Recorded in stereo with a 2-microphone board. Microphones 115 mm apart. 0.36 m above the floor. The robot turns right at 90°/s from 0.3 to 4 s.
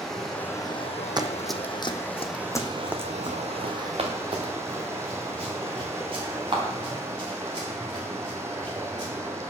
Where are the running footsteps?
40° right (ahead or behind), 0.6 m; by 9.1 s 45° right (ahead or behind), 4 m.